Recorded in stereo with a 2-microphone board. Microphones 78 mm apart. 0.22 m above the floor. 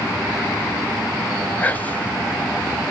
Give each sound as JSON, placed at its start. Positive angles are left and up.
{"t": 1.6, "sound": "whispering", "side_deg": 20, "distance_m": 1.1}